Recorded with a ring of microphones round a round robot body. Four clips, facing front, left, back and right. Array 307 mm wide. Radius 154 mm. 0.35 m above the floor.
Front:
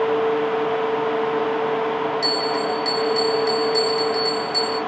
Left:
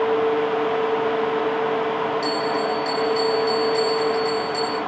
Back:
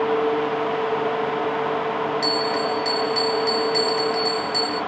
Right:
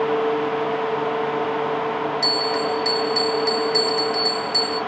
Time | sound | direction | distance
2.2 | a bell | 105° right | 2.5 m